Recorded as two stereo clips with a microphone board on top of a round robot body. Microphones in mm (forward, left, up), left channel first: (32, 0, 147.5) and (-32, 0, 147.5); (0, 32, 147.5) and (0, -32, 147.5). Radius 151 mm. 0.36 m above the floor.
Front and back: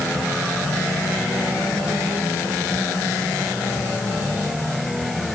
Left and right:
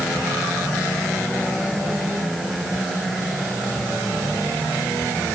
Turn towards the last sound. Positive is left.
No sound to turn to.